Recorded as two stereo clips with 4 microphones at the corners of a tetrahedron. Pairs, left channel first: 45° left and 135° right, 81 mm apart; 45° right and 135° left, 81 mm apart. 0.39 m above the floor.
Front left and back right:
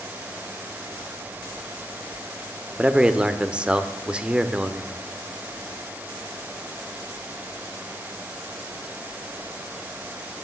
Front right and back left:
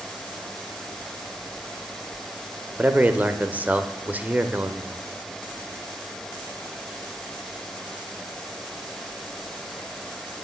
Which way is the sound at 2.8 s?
170° left.